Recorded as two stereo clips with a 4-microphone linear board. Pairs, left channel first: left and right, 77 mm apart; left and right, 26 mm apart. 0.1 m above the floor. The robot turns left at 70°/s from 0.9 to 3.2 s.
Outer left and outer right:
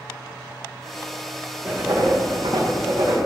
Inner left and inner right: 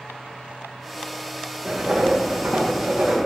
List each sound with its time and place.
1.6 s writing: 15° right, 6.5 m; by 3.2 s 120° right, 6.5 m